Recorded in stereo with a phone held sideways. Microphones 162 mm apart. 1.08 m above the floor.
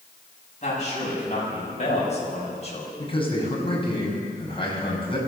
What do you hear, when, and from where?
0.6 s a man speaking: 45° left (ahead or behind), 9 m; by 2.9 s 40° left (ahead or behind), 6 m
3.0 s a man speaking: 35° left (ahead or behind), 6 m